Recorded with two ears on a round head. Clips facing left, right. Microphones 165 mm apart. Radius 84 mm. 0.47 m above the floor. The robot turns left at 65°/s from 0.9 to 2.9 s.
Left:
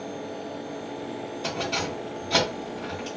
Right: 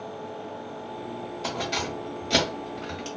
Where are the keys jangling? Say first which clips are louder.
Left 1 dB; centre (ahead or behind), 1.2 m; by 3.1 s 60° right (ahead or behind), 1.2 m.